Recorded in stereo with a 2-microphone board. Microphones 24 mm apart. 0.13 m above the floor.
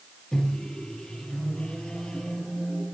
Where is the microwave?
35° left (ahead or behind), 3 m.